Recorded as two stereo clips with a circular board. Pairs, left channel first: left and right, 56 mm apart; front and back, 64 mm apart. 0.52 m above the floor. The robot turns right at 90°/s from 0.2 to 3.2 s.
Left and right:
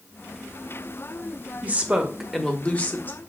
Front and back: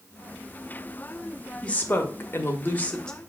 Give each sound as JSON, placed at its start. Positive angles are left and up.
{"t": 1.6, "sound": "a woman speaking", "azimuth_deg": -60, "distance_m": 0.8}